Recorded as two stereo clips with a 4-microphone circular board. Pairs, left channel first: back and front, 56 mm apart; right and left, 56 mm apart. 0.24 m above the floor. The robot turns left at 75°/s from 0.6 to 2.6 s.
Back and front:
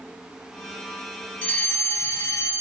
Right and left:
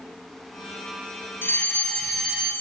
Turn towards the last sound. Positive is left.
turn(degrees=160)